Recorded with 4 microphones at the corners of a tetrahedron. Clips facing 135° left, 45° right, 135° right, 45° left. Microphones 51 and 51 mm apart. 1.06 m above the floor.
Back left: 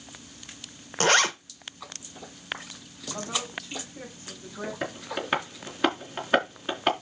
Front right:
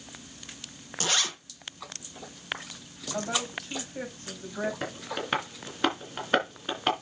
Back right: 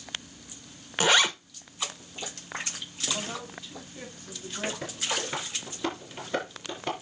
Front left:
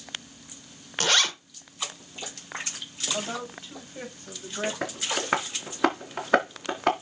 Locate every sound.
1.0 s a zipper: 155° left, 1.0 m
3.1 s a woman speaking: 5° right, 5.5 m
4.8 s tapping: 50° left, 3 m